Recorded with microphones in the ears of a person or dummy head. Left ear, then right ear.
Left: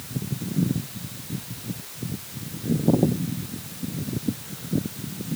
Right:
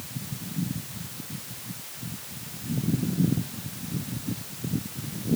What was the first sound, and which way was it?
Only background noise.